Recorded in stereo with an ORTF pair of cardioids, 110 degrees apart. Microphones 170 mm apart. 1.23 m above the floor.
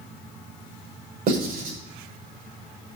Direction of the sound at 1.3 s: 65° right.